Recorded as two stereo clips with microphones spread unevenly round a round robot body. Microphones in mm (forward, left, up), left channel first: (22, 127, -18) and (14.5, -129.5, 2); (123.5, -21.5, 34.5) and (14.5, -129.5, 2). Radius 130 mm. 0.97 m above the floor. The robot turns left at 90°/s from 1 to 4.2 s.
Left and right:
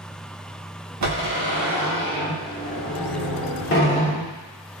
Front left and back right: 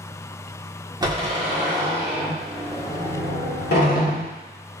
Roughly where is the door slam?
Right.